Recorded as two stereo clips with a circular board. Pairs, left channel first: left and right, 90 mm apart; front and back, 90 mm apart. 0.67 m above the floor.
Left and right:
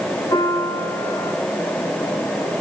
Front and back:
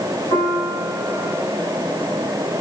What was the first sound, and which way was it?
A piano, 45° left.